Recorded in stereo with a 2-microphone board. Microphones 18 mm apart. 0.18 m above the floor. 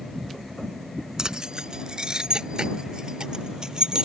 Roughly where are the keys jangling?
Right.